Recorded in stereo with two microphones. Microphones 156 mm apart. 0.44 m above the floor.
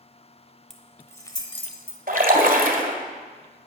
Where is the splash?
60° right (ahead or behind), 1.6 m.